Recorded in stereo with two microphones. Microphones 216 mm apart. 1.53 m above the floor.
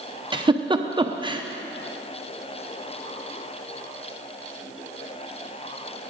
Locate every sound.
0.3 s a giggle: 25° right (ahead or behind), 0.6 m